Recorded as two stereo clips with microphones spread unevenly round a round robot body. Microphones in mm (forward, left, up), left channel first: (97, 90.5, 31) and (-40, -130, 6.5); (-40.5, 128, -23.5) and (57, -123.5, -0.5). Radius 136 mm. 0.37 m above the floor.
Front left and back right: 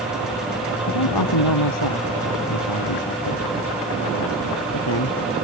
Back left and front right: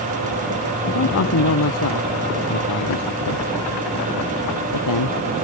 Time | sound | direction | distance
0.9 | a man speaking | 70° left | ?